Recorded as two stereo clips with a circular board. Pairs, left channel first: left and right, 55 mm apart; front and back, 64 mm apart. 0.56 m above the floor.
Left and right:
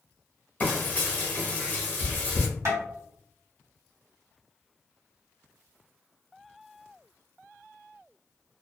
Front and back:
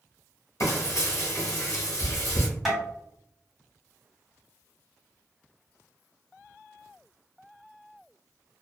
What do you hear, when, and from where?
0.6 s frying: 30° left, 1.0 m
2.6 s tapping: 90° right, 1.6 m